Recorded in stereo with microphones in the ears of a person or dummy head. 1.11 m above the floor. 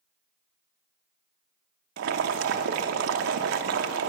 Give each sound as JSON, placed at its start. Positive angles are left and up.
{"t": 2.0, "sound": "boiling", "side_deg": -70, "distance_m": 0.7}